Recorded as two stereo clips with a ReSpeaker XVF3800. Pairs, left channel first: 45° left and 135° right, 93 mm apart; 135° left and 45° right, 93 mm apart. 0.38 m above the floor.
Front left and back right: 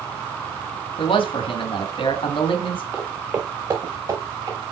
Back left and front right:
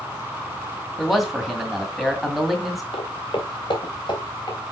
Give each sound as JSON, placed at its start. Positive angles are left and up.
{"t": 1.0, "sound": "a man speaking", "azimuth_deg": 45, "distance_m": 2.0}
{"t": 2.9, "sound": "footsteps", "azimuth_deg": 155, "distance_m": 1.7}